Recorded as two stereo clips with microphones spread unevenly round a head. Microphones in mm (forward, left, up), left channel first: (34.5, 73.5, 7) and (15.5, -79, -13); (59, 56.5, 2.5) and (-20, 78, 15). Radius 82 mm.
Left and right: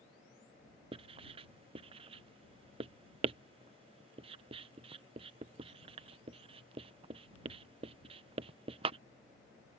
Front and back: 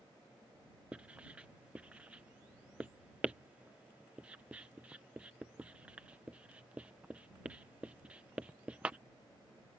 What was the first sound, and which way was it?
Writing, 140° right.